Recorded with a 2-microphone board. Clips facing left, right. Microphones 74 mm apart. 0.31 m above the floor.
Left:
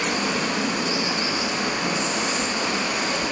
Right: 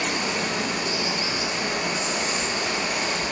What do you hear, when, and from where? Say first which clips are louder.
0.0 s running water: left 2 dB; 75° left (ahead or behind), 1.8 m